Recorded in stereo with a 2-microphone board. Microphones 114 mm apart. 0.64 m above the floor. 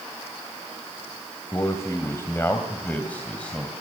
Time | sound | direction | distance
1.5 | a man speaking | 30° left (ahead or behind) | 2.5 m